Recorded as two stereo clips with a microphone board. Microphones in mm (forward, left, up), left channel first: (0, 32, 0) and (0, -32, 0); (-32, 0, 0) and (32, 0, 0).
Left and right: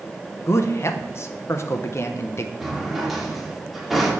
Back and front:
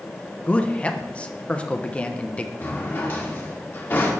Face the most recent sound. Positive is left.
turn(degrees=-170)